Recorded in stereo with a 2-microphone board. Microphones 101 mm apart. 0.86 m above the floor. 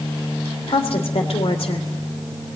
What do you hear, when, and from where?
0.7 s a woman speaking: 70° left (ahead or behind), 3 m